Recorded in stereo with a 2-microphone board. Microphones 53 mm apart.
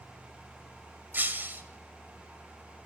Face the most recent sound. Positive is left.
turn(degrees=-40)  # may be behind; listen again after turning